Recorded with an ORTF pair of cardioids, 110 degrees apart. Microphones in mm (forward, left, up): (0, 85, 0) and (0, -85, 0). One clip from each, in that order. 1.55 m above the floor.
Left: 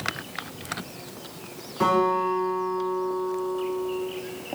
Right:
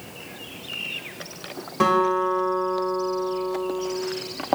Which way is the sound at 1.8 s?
65° right.